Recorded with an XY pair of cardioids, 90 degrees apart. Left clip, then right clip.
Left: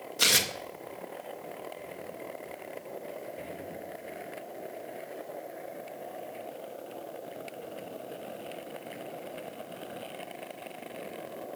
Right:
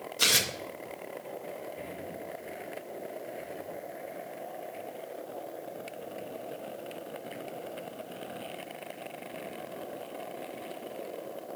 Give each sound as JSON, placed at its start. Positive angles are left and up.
{"t": 0.2, "sound": "tearing paper", "azimuth_deg": 20, "distance_m": 0.7}